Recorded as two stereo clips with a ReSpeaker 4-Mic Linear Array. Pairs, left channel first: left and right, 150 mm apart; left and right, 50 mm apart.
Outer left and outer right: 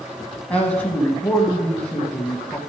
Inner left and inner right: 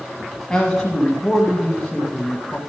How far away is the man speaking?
About 1.2 m.